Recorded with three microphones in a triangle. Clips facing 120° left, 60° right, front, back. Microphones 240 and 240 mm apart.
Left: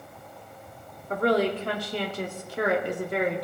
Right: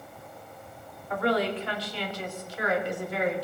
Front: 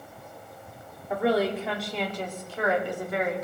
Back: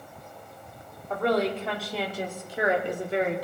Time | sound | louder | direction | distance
1.1 | a woman speaking | left 3 dB, front 1 dB | 80° left | 2 m